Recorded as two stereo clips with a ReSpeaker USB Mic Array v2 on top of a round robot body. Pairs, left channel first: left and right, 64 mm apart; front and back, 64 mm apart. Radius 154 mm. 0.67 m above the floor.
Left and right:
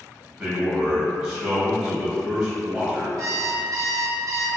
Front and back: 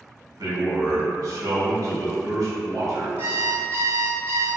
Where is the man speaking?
155° right, 1.3 m.